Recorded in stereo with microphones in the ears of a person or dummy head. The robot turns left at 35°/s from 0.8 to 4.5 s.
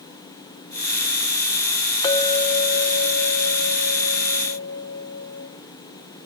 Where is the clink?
155° left, 1.6 m; by 5.5 s 70° left, 1.6 m.